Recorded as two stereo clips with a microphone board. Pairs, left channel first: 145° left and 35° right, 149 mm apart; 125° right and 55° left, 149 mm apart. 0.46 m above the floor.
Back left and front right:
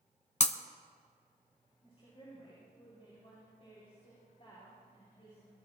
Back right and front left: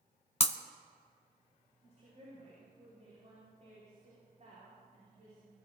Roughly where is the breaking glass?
Behind.